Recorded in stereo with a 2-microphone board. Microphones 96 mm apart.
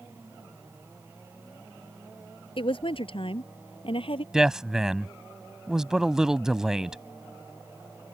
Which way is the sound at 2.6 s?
65° left (ahead or behind).